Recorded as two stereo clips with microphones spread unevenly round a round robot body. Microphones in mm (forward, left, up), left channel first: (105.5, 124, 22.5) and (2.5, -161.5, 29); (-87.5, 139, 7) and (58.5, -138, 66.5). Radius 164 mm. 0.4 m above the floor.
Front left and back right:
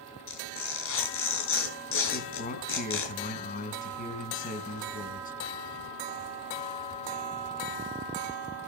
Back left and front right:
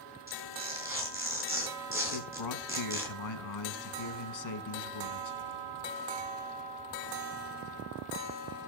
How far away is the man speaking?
About 3.5 m.